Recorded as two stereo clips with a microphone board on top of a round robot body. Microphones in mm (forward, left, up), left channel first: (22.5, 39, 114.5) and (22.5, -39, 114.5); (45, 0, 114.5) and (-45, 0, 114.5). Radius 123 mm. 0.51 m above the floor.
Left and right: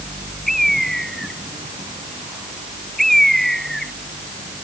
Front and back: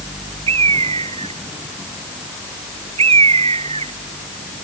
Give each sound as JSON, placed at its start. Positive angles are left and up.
{"t": 0.5, "sound": "a bird", "azimuth_deg": 175}